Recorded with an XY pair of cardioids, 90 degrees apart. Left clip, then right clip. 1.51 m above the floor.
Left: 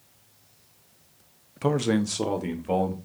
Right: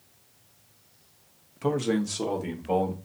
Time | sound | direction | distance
1.6 | a man speaking | 40° left | 0.8 m